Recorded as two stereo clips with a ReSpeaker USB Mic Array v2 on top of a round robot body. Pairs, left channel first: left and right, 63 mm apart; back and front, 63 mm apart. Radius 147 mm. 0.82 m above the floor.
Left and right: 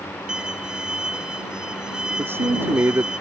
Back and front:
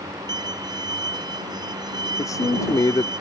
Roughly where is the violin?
Ahead.